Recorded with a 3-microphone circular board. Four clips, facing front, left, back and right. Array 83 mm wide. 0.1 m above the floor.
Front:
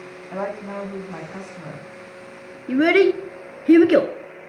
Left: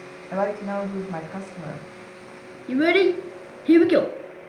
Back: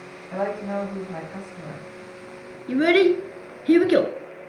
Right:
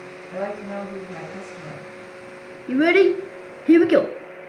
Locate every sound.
0.3 s a woman speaking: 90° left, 6 m
2.7 s a child speaking: 40° right, 1.0 m